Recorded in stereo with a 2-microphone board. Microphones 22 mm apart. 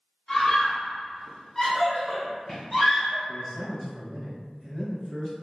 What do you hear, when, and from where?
0.3 s a scream: 25° left (ahead or behind), 1.3 m; by 3.2 s 5° left (ahead or behind), 1.9 m
3.3 s a man speaking: centre (ahead or behind), 1.4 m